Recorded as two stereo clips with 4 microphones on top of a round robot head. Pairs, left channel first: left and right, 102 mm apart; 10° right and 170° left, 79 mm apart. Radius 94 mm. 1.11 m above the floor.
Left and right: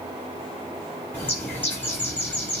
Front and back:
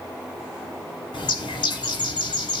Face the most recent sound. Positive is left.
turn(degrees=15)